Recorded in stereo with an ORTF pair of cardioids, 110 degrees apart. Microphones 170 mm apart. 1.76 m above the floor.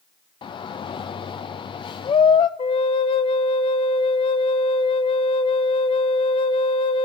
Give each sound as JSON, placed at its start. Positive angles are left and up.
{"t": 0.4, "sound": "a shout", "azimuth_deg": 30, "distance_m": 0.6}
{"t": 2.6, "sound": "a flute", "azimuth_deg": 35, "distance_m": 0.8}